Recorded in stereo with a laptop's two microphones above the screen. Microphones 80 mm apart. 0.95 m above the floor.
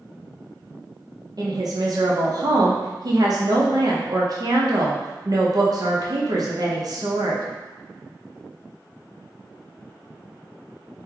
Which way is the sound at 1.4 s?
50° right (ahead or behind).